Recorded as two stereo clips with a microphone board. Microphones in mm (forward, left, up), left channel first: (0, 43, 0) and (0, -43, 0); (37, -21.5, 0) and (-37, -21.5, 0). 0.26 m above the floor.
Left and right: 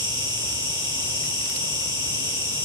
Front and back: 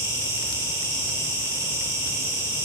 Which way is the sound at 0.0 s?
135° right.